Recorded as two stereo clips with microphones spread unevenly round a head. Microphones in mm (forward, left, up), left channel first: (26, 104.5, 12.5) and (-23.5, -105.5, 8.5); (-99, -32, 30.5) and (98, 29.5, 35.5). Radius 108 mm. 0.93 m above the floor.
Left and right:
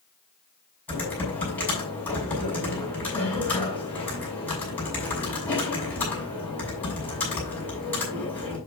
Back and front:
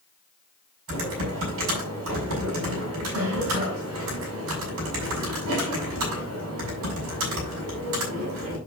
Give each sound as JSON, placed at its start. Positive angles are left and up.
{"t": 0.9, "sound": "typing on a keyboard", "azimuth_deg": -5, "distance_m": 7.0}